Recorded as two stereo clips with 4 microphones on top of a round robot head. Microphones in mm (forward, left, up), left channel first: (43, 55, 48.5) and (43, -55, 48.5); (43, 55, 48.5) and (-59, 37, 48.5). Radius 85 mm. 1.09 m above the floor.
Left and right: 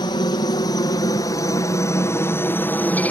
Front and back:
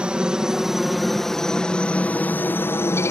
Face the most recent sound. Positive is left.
turn(degrees=30)